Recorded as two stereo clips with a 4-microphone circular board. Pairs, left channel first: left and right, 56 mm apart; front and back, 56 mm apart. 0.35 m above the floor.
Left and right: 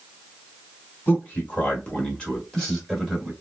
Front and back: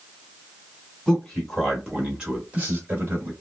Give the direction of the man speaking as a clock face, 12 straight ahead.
10 o'clock.